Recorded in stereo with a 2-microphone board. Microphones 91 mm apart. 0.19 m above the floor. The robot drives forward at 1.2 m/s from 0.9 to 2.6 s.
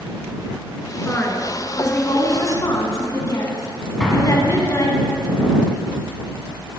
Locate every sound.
1.0 s a woman speaking: 25° left (ahead or behind), 2 m; by 5.0 s 40° left (ahead or behind), 1.3 m
4.0 s an explosion: 5° left (ahead or behind), 1.7 m